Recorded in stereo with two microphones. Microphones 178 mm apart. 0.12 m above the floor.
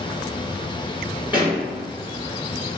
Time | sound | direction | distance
1.3 | a pop | 25° left (ahead or behind) | 1.8 m